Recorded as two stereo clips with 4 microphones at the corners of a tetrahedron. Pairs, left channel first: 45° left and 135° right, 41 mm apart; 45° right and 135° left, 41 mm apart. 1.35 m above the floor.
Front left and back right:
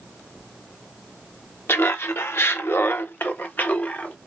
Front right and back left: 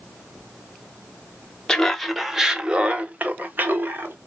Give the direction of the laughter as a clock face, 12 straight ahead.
11 o'clock.